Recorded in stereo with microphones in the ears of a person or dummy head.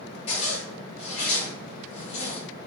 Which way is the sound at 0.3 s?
35° left (ahead or behind).